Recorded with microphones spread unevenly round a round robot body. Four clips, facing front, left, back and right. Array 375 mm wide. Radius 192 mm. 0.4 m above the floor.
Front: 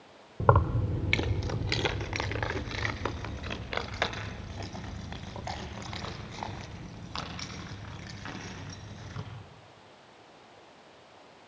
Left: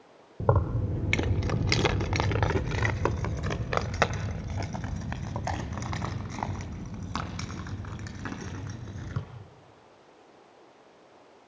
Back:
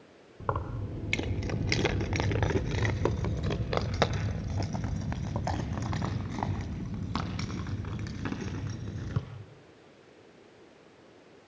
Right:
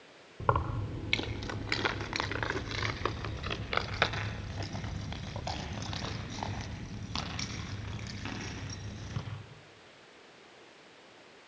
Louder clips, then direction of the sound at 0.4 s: Left 3 dB, front 9 dB; 30° left.